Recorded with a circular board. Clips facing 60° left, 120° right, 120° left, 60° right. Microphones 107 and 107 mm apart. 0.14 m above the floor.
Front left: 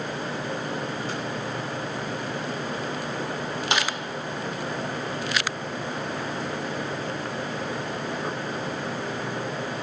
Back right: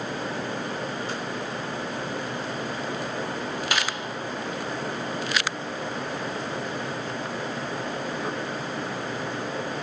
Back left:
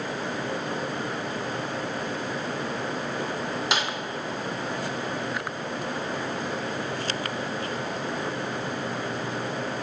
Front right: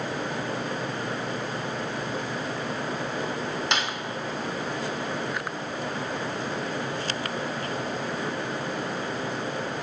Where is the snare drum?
40° left, 0.6 m.